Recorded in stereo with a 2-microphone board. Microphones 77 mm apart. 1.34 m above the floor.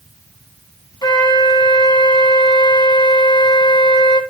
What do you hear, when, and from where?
1.0 s a flute: 70° left (ahead or behind), 3.5 m